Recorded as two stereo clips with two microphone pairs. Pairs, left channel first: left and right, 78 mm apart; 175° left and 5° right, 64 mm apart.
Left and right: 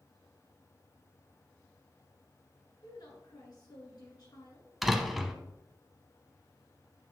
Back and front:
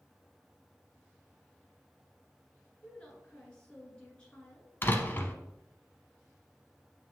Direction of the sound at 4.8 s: Straight behind.